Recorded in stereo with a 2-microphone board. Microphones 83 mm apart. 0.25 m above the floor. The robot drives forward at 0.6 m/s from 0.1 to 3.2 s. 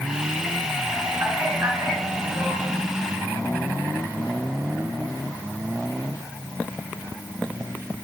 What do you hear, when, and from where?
1.2 s a man speaking: 35° right (ahead or behind), 1.5 m; by 2.6 s 25° right (ahead or behind), 1.9 m